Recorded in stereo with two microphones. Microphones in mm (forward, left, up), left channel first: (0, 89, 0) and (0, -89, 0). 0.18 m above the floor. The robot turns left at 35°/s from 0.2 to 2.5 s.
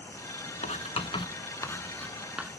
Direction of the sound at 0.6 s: 40° left (ahead or behind).